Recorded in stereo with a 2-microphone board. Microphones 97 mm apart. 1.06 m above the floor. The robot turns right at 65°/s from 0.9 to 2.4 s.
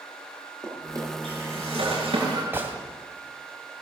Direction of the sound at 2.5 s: 20° right (ahead or behind).